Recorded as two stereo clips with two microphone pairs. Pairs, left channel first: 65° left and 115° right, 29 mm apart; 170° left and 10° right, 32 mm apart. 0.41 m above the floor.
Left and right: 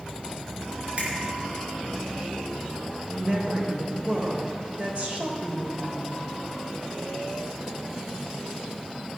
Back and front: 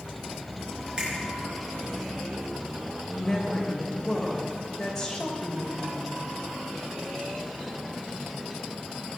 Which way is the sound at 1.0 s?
70° right.